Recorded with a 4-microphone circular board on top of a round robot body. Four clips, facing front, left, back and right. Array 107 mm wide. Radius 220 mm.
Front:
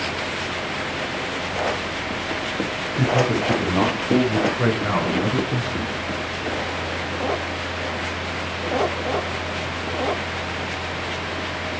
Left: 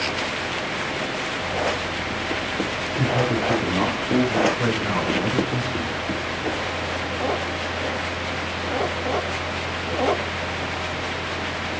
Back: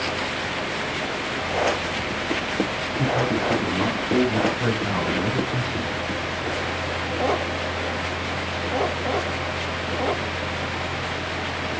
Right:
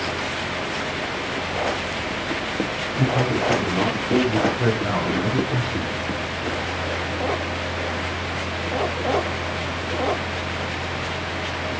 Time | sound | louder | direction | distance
2.9 | a man speaking | right 1 dB, front 3 dB | straight ahead | 3 m